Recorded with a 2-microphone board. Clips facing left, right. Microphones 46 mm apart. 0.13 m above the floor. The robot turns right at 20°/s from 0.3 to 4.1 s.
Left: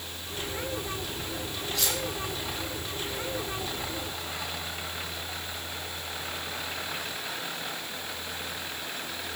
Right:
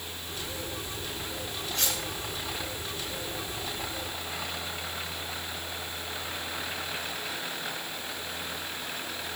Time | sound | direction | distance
1.8 | cutlery clinking | 45° right (ahead or behind) | 4 m